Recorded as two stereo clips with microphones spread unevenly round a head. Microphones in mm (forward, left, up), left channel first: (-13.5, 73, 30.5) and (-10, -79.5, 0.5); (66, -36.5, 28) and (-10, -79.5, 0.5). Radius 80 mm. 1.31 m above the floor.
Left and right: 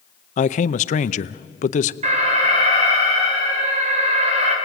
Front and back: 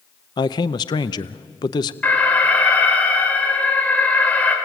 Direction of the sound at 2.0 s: 40° right.